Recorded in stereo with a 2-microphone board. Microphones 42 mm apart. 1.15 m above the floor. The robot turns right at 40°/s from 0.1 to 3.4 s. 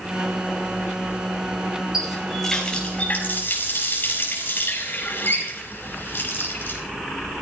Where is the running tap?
10° right, 5 m; by 6.8 s 50° left, 5 m.